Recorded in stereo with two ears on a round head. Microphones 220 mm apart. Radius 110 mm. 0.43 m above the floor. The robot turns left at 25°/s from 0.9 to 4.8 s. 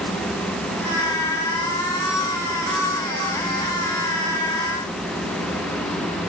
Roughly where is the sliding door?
I don't hear a sliding door.